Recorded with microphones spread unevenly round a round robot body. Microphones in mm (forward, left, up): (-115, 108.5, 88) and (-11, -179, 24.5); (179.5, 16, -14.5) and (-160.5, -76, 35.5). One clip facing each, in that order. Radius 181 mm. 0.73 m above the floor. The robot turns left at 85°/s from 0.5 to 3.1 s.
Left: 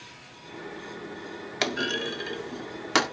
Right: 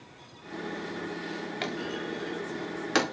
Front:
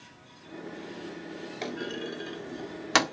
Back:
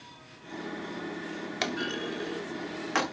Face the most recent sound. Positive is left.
turn(degrees=10)